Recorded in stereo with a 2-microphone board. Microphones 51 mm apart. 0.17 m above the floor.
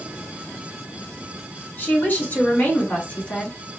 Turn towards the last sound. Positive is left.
turn(degrees=25)  # may be behind; listen again after turning